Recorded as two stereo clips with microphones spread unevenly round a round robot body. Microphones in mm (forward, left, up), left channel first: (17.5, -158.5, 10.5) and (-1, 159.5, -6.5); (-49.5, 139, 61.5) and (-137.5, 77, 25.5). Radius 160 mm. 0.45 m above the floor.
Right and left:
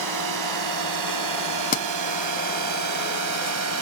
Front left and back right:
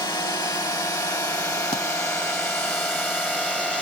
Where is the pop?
25° right.